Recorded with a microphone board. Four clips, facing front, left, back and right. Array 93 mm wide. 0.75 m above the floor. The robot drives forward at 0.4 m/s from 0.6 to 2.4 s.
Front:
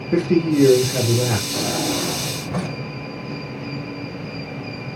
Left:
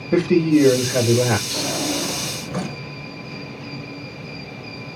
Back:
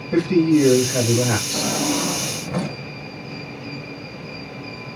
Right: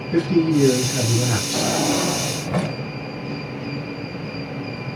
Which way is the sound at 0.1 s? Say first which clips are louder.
Left 2 dB, back 2 dB; 80° left.